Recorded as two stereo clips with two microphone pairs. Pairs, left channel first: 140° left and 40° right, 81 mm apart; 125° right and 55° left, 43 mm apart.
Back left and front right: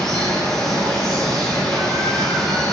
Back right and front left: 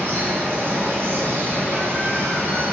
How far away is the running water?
About 1.6 m.